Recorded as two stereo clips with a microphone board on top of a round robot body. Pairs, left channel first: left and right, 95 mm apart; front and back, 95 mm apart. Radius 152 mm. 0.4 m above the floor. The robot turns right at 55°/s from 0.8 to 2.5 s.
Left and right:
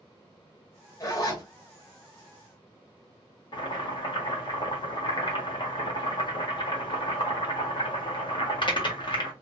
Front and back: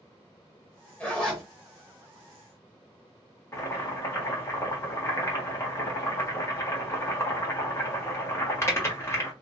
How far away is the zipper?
About 1.6 m.